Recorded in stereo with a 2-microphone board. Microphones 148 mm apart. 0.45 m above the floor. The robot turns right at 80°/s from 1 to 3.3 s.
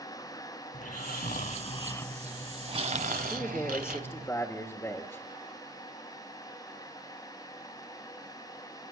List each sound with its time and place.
0.7 s snoring: 80° left, 1.2 m; by 4.3 s 95° right, 1.2 m
3.3 s a man speaking: 15° left (ahead or behind), 1.6 m